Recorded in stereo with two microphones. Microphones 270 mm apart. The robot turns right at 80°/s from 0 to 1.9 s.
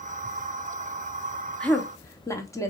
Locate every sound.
1.6 s a woman speaking: 5° left (ahead or behind), 0.6 m; by 2.7 s 10° left (ahead or behind), 0.6 m